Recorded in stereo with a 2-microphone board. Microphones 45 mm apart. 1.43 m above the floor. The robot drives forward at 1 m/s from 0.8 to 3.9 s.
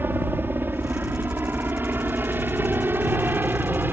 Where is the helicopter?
50° right (ahead or behind); by 3.9 s 45° right (ahead or behind).